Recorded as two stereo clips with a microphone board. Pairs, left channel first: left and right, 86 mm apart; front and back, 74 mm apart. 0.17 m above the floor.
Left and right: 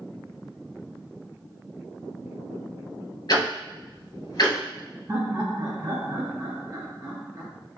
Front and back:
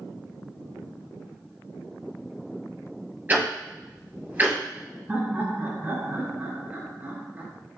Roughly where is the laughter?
Behind right.